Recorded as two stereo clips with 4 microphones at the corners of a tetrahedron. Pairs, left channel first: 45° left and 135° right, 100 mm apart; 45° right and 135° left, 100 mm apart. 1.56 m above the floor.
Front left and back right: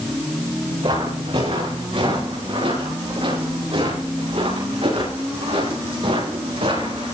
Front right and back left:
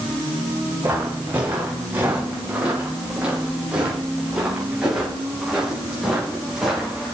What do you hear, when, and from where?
0.8 s footsteps: 155° right, 8.5 m; by 7.1 s 140° right, 10 m